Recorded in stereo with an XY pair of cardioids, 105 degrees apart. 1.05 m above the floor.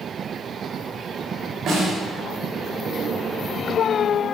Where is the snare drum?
60° right, 4.5 m.